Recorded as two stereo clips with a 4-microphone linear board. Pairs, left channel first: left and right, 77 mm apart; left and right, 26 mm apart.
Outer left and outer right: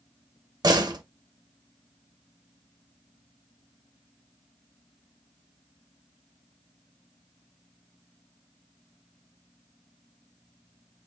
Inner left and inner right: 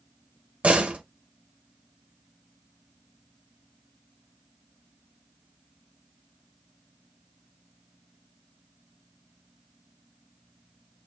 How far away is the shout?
I don't hear a shout.